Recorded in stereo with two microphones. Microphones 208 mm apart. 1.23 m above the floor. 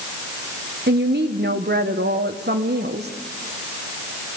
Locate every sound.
0.9 s a woman speaking: 60° right (ahead or behind), 1.1 m